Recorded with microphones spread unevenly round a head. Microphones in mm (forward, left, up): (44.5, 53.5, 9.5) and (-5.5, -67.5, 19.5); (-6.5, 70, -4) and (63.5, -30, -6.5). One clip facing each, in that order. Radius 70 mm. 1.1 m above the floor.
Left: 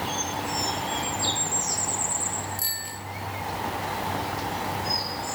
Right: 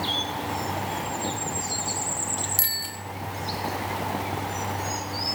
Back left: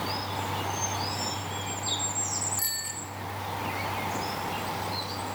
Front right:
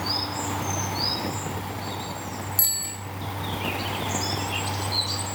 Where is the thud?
I don't hear a thud.